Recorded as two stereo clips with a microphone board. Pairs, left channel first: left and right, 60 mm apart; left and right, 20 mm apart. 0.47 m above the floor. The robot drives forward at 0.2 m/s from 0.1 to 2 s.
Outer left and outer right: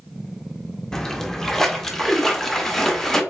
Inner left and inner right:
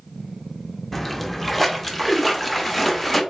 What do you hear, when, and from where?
0.9 s a splash: 10° left (ahead or behind), 0.5 m